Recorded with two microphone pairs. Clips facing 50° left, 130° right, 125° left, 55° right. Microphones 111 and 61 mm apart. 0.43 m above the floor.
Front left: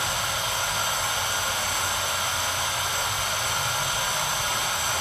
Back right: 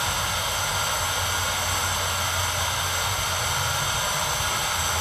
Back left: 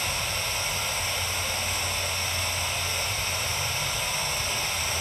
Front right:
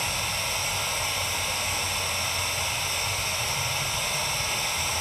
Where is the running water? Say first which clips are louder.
Back right 1 dB, even; 60° right, 1.9 m.